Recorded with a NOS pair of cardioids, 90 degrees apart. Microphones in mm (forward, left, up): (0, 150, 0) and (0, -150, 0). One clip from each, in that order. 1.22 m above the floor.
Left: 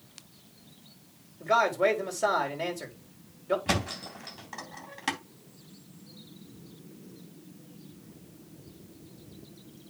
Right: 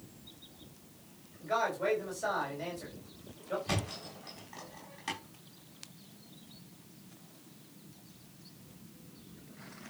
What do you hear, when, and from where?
1.4 s a man speaking: 70° left, 4.5 m
3.7 s a thud: 65° left, 3.5 m